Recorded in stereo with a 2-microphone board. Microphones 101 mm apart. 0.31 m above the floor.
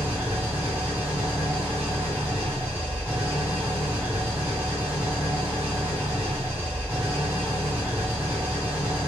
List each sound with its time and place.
0.0 s an engine running: 10° right (ahead or behind), 1.4 m